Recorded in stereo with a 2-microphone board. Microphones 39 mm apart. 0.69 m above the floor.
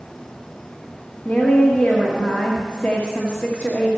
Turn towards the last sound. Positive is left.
turn(degrees=35)  # may be behind; listen again after turning